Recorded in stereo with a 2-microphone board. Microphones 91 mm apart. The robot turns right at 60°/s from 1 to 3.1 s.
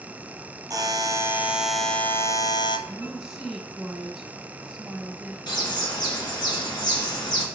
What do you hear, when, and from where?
0.7 s a buzzer: 45° right, 0.7 m; by 2.8 s 65° left, 0.7 m
2.9 s a woman speaking: 15° right (ahead or behind), 1.1 m; by 5.4 s 10° right (ahead or behind), 1.1 m
5.5 s a bird: 55° left (ahead or behind), 2.0 m